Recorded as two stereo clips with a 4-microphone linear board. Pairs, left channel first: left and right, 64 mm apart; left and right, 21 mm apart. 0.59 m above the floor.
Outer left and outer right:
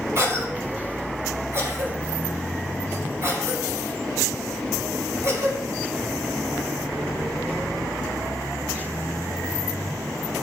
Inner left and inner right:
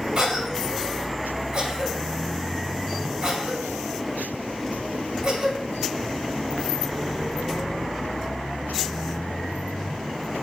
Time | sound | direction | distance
0.1 | a cough | 45° right (ahead or behind) | 2.5 m